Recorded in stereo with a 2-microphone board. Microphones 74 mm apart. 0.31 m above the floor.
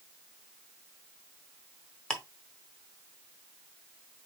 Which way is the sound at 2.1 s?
15° left (ahead or behind).